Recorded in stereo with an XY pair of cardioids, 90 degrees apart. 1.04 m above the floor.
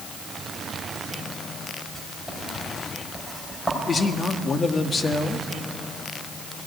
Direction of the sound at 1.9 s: 10° left.